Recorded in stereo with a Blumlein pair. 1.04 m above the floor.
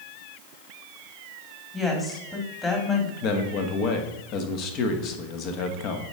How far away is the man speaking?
About 1.2 m.